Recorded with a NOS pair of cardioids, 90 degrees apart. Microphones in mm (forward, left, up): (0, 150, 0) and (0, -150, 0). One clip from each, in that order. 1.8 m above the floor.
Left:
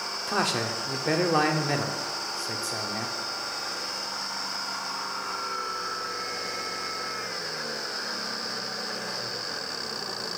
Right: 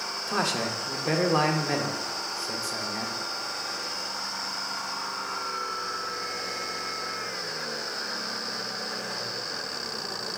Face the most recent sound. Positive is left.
turn(degrees=5)